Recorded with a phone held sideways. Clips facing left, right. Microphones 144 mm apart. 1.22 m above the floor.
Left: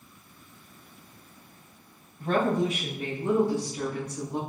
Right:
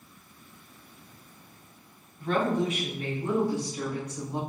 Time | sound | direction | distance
2.2 | a woman speaking | 45° left (ahead or behind) | 0.9 m